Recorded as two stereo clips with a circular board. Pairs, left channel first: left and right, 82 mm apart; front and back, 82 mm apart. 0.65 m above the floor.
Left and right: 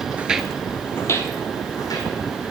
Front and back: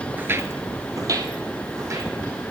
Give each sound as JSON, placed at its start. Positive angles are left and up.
{"t": 0.2, "sound": "footsteps", "azimuth_deg": -135, "distance_m": 0.7}